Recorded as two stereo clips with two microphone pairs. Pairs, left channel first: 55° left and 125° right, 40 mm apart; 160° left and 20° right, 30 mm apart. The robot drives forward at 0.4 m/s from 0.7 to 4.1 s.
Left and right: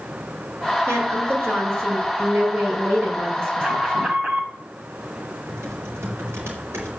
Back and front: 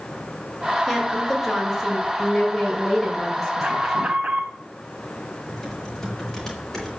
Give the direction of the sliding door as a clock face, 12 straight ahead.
I don't hear a sliding door.